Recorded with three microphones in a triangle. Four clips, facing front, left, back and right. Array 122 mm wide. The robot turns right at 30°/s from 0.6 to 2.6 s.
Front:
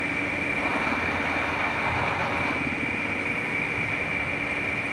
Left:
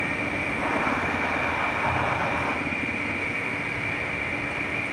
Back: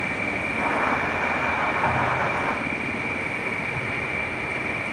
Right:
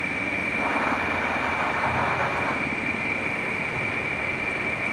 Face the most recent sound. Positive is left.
turn(degrees=-140)